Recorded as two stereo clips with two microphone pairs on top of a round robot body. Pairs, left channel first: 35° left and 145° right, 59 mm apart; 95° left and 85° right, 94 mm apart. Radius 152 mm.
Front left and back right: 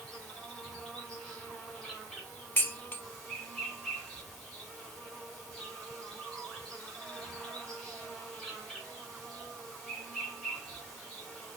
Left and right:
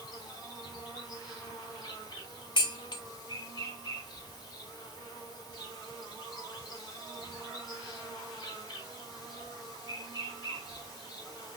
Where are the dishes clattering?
85° left, 0.6 m.